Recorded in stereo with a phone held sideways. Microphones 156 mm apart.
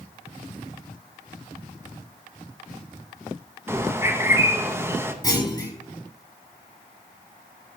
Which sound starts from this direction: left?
A clunk, at 5.2 s.